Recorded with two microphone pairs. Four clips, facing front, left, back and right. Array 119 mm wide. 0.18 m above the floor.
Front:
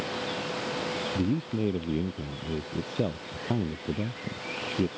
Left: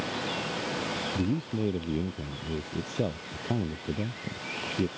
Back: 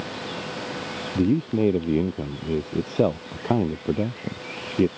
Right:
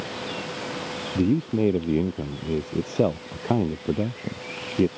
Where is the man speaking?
145° right.